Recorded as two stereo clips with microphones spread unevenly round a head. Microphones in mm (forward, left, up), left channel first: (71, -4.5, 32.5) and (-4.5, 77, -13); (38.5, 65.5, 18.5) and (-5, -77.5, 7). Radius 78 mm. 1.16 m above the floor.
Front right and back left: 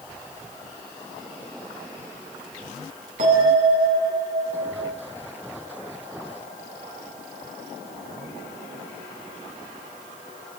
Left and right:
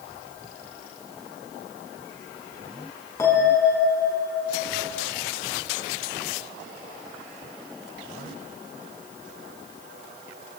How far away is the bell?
About 9.5 m.